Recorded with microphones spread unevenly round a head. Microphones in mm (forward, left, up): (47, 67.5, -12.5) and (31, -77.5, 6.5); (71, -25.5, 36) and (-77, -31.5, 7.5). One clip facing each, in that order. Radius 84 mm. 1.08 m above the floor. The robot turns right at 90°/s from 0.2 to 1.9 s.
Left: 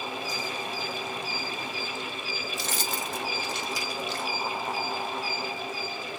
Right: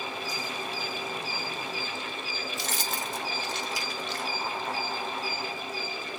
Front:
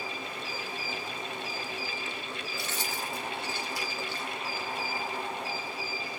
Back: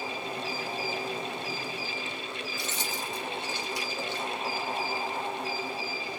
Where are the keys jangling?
105° left, 0.9 m.